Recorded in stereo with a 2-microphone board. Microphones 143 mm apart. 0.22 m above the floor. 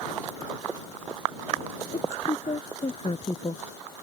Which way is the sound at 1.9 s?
50° left (ahead or behind).